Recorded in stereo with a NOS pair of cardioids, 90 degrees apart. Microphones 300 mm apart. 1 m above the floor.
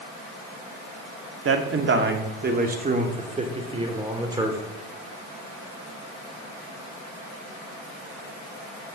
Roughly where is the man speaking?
Ahead right.